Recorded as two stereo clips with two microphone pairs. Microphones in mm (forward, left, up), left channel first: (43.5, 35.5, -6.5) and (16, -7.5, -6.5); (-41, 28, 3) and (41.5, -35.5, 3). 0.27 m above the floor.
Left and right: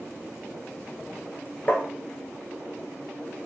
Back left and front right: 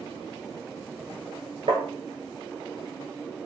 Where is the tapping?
10° right, 1.0 m.